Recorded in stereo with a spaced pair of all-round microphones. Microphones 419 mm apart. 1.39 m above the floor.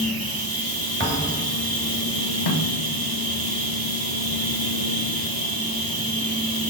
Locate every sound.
0.0 s a machine running: 55° right (ahead or behind), 0.9 m
1.0 s a thud: 30° right (ahead or behind), 1.3 m
2.5 s a snare drum: 70° left (ahead or behind), 0.8 m